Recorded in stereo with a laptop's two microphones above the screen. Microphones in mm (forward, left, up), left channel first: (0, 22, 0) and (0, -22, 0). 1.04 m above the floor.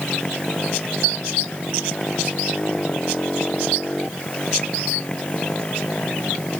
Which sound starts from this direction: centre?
A motorcycle, at 0.0 s.